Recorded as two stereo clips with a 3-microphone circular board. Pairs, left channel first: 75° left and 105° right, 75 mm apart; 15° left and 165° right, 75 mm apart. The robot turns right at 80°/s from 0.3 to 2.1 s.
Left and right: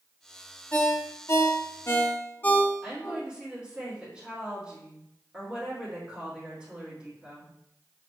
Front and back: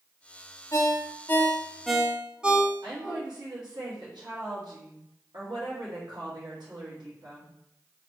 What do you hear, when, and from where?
0.7 s a ringtone: 15° left, 0.6 m; by 3.2 s 125° left, 0.6 m
2.8 s a woman speaking: 175° left, 2.5 m